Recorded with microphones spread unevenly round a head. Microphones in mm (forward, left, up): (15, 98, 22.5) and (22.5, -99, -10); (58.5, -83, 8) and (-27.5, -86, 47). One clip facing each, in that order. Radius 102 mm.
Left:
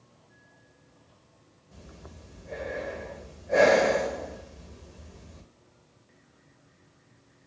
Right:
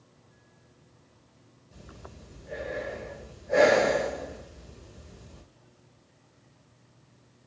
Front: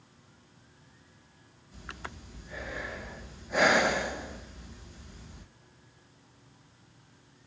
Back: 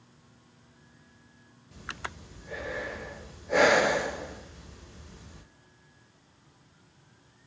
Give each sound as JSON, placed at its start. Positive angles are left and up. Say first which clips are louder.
{"t": 1.7, "sound": "breathing", "louder": "even, back 3 dB", "azimuth_deg": -165, "distance_m": 0.9}